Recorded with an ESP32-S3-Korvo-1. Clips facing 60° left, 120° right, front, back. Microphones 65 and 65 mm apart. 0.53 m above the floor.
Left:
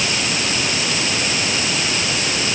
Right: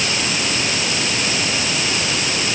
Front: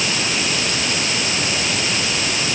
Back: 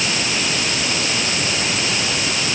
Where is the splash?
I don't hear a splash.